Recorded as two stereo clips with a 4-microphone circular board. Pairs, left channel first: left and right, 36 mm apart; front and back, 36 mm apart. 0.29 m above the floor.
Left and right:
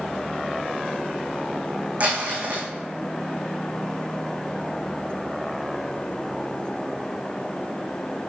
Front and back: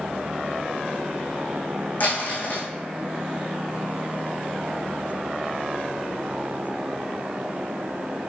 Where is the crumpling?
40° right, 2.5 m.